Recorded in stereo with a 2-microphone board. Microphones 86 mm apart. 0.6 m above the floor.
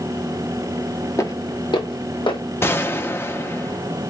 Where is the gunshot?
25° left (ahead or behind), 0.5 m.